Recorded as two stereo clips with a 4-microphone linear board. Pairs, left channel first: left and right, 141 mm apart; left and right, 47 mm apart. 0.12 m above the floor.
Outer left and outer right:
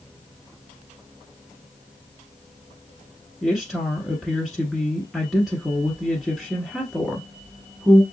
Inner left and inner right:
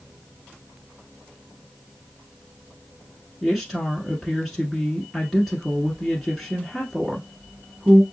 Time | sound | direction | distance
3.4 | a woman speaking | centre (ahead or behind) | 1.2 m